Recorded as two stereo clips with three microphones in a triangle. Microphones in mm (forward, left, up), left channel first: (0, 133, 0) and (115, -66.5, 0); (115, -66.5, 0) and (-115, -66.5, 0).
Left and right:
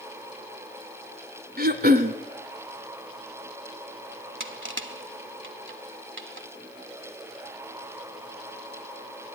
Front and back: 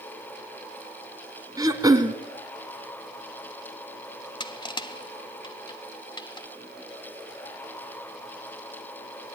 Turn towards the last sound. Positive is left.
turn(degrees=-70)